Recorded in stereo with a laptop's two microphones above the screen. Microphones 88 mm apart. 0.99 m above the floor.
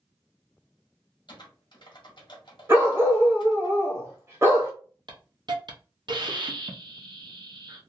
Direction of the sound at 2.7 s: 30° right (ahead or behind).